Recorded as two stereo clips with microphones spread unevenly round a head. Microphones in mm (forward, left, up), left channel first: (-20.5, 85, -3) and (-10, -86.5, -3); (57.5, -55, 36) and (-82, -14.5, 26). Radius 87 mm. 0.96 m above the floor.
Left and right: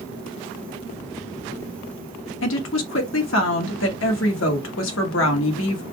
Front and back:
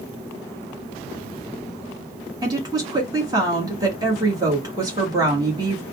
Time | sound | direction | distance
2.4 | a woman speaking | 100° left | 1.4 m